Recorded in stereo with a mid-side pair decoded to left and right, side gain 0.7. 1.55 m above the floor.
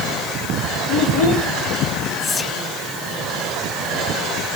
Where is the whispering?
20° left, 2 m.